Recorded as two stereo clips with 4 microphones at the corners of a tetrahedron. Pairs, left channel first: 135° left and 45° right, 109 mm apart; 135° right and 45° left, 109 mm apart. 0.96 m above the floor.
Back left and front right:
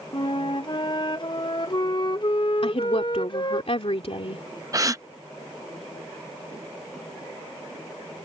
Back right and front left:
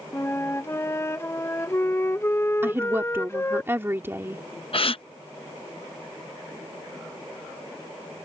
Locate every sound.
0.1 s a flute: 165° left
2.6 s a woman speaking: 110° left
4.7 s a gasp: 105° right